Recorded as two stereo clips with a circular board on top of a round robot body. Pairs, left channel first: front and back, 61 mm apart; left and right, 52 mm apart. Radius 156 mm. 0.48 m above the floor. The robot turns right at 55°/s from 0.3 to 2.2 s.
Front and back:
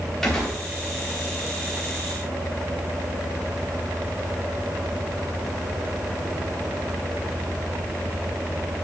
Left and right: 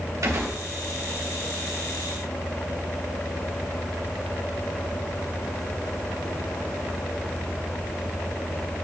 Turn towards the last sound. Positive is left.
turn(degrees=20)